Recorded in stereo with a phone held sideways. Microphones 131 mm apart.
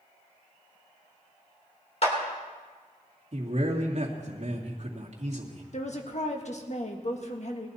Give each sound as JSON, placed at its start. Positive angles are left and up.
{"t": 2.0, "sound": "a clap", "side_deg": 55, "distance_m": 3.5}
{"t": 3.3, "sound": "a man speaking", "side_deg": -55, "distance_m": 2.0}
{"t": 5.7, "sound": "a woman speaking", "side_deg": 60, "distance_m": 1.6}